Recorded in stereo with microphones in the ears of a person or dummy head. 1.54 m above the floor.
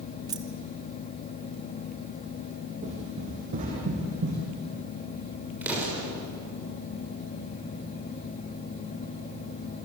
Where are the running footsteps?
25° right (ahead or behind), 2.5 m; by 4.5 s 30° right (ahead or behind), 3.5 m.